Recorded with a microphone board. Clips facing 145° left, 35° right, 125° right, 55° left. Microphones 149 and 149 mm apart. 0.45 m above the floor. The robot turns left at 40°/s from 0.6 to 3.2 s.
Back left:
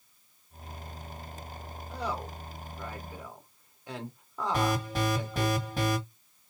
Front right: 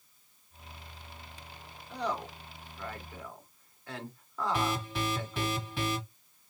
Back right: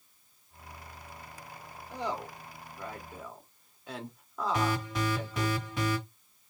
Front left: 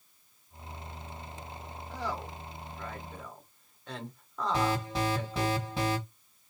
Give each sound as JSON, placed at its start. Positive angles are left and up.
{"t": 1.9, "sound": "a woman speaking", "azimuth_deg": -140, "distance_m": 1.1}
{"t": 4.5, "sound": "an alarm", "azimuth_deg": 110, "distance_m": 1.8}